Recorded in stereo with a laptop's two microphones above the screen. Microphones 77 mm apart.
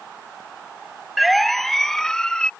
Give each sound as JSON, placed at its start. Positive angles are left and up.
{"t": 1.2, "sound": "a siren", "side_deg": 0}